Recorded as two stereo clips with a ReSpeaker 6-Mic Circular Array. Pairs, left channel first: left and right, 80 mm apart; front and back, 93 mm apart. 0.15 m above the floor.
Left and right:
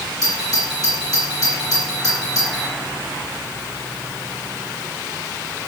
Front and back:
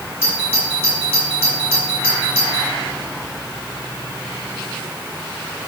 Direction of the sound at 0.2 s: 60° left.